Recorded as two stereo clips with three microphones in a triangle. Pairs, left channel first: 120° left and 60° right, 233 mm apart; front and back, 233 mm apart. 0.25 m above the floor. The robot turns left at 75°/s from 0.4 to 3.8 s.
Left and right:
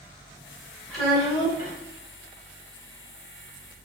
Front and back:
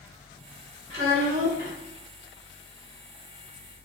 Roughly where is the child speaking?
Behind right.